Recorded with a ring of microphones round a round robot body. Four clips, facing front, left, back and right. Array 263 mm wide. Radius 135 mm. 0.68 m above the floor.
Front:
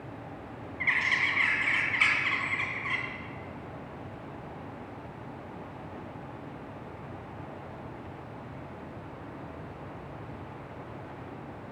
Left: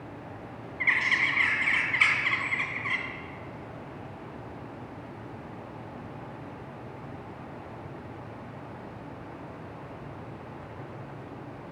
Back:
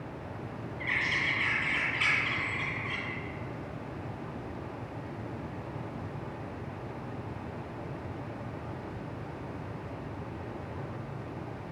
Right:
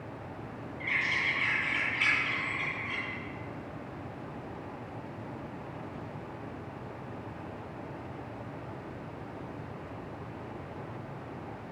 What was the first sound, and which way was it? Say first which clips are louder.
A bird: left 5 dB, front 3 dB; 70° left.